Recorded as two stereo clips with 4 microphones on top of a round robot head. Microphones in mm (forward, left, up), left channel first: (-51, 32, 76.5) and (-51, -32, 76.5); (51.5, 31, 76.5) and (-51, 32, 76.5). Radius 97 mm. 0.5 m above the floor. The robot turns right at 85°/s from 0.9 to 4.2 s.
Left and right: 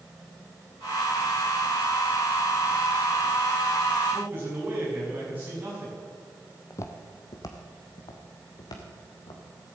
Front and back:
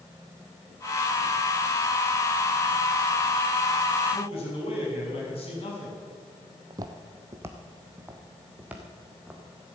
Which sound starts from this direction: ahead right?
A man speaking, at 4.1 s.